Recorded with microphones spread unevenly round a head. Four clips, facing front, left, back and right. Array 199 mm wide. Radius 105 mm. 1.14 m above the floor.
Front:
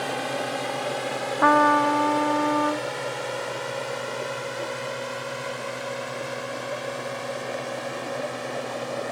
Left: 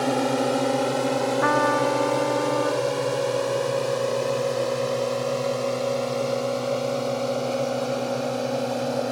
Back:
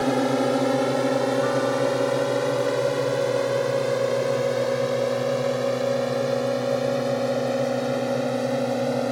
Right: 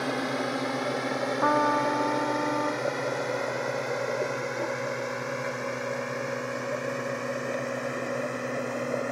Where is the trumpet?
5° left.